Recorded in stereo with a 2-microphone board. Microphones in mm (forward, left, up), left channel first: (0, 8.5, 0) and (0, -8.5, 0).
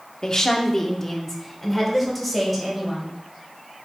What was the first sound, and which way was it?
A woman speaking, 35° left (ahead or behind).